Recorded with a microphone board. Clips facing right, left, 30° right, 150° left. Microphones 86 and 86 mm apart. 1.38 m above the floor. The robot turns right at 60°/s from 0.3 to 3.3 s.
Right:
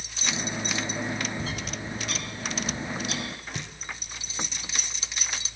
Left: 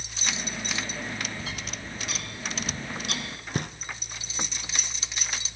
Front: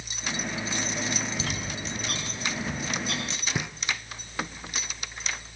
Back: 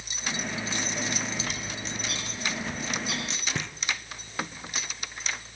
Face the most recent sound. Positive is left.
turn(degrees=50)